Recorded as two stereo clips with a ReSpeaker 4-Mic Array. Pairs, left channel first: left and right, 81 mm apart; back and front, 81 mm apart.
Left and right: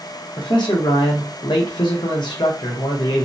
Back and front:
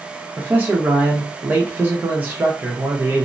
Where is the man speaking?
70° left, 0.8 m.